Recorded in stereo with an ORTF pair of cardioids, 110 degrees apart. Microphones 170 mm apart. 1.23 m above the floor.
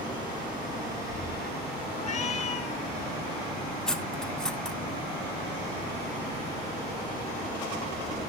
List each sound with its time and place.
1.9 s a cat meowing: 45° left, 4 m
3.9 s cutlery clinking: 5° left, 0.9 m